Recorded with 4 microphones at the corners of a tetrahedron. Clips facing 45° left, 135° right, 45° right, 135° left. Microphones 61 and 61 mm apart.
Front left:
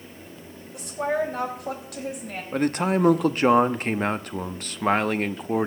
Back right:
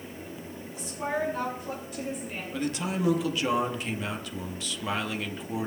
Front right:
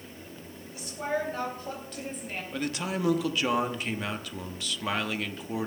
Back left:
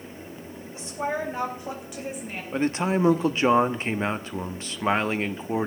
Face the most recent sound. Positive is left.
turn(degrees=80)